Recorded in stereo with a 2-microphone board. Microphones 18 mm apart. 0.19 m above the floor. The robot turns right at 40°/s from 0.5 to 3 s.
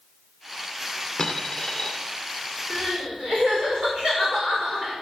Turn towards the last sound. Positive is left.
turn(degrees=-50)  # may be behind; listen again after turning